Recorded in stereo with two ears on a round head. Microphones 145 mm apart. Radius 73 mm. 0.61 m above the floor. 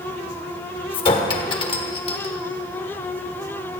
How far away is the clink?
About 1.3 m.